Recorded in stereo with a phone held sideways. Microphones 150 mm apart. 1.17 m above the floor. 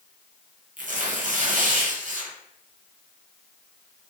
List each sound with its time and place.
0.8 s tearing paper: 60° right (ahead or behind), 0.7 m